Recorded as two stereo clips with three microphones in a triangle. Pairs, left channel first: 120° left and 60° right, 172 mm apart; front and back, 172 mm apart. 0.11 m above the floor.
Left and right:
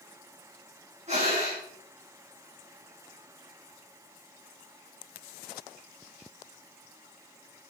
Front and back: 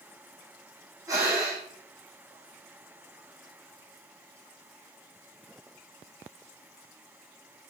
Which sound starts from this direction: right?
Breathing, at 1.1 s.